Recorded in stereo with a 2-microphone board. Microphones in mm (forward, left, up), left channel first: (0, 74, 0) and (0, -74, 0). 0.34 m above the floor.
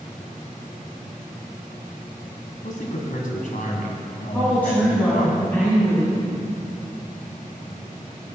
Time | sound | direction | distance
2.6 | a man speaking | 65° left (ahead or behind) | 2 m
4.3 | a woman speaking | 10° left (ahead or behind) | 3 m